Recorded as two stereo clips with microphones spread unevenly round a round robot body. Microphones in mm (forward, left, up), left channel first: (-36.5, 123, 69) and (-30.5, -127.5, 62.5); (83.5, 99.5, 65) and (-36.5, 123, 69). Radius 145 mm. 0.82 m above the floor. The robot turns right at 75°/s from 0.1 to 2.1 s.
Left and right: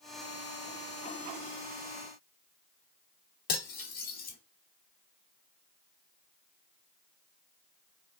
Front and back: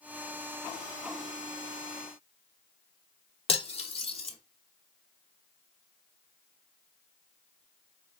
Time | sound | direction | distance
3.5 | cutlery clinking | 30° left | 0.9 m